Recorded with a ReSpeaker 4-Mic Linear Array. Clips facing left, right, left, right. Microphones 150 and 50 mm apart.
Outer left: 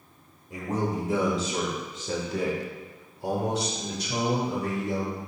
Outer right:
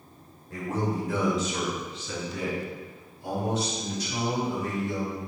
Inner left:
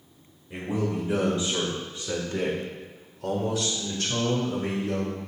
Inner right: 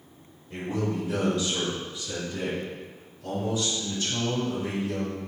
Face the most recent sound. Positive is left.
turn(degrees=60)  # may be behind; listen again after turning